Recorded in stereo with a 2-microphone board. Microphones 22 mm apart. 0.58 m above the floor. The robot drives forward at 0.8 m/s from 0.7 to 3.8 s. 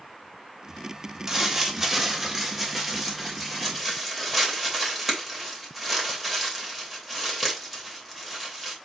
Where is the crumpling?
30° right (ahead or behind), 1.5 m; by 8.8 s 15° right (ahead or behind), 3 m.